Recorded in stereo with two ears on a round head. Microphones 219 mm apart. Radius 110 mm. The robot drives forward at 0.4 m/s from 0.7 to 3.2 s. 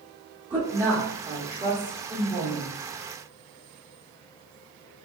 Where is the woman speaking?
10° right (ahead or behind), 0.8 m; by 2.8 s 5° right (ahead or behind), 1.7 m.